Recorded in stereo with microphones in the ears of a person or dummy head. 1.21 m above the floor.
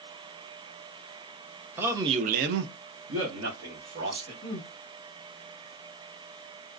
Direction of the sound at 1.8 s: 10° right (ahead or behind).